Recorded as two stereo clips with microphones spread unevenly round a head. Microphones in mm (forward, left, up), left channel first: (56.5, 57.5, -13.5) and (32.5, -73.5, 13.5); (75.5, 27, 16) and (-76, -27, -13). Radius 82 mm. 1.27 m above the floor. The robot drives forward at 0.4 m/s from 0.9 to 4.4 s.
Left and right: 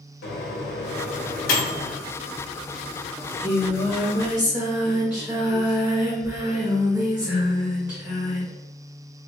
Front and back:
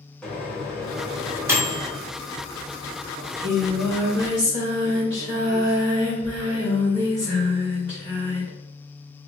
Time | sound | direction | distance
0.2 | a microwave | 105° left | 0.7 m
3.2 | singing | 165° right | 0.9 m